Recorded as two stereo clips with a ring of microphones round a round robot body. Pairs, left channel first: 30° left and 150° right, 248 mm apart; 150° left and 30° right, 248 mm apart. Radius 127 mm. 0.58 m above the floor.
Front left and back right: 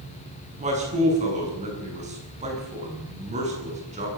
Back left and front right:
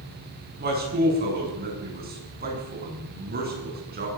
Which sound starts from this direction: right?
A man speaking, at 0.6 s.